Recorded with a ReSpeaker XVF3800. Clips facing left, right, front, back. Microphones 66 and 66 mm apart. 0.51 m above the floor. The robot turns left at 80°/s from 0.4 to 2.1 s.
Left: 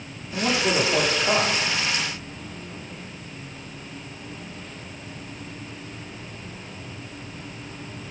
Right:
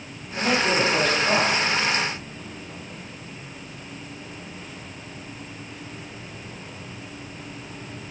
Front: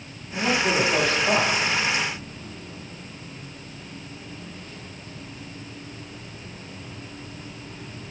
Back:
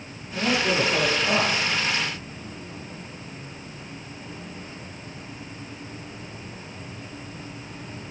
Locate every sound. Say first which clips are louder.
0.3 s a man speaking: right 1 dB, front 1 dB; 80° left, 1.0 m; by 1.7 s 20° right, 1.0 m